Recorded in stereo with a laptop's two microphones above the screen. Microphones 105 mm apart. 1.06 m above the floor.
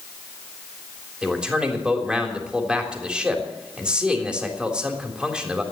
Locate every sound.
1.2 s a man speaking: 10° right (ahead or behind), 3.5 m